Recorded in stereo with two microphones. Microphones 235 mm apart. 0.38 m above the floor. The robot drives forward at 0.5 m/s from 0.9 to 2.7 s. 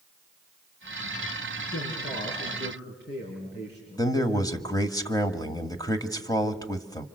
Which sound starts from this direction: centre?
A man speaking, at 4.0 s.